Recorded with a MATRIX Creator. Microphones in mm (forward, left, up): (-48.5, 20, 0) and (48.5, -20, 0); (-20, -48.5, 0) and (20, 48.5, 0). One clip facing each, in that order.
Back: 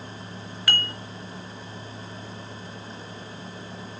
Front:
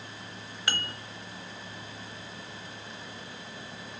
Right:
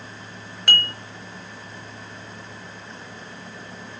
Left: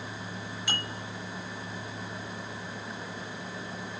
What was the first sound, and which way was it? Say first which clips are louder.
Dishes clattering: back 4 dB, right 10 dB; 85° right.